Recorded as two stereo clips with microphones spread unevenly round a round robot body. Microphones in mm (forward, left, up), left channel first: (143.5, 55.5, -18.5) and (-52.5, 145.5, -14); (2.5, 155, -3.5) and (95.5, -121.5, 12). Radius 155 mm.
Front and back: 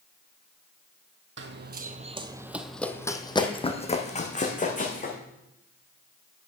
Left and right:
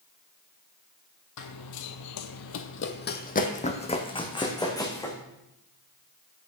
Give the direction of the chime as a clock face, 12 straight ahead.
No chime in this recording.